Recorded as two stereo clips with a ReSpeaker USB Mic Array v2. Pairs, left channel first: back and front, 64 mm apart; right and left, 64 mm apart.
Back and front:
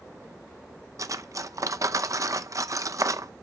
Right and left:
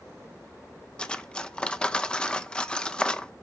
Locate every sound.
1.0 s cutlery clinking: 15° right, 0.5 m